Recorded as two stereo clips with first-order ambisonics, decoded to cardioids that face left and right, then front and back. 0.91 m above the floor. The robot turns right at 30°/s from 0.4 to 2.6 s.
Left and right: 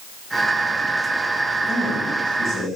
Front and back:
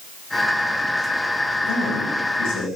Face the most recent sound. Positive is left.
turn(degrees=35)